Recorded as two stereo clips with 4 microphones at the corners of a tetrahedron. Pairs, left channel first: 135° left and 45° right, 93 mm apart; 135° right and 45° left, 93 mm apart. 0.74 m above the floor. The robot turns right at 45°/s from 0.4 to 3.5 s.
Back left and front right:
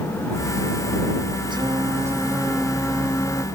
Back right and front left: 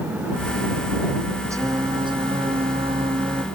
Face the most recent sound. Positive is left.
turn(degrees=80)